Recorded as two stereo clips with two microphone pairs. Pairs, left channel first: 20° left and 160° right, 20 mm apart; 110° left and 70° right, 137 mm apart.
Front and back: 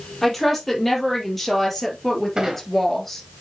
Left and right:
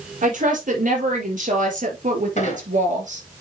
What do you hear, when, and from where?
0.2 s a woman speaking: 65° right, 4.5 m; by 3.2 s 60° right, 2.5 m
2.4 s a squeak: 145° left, 2.5 m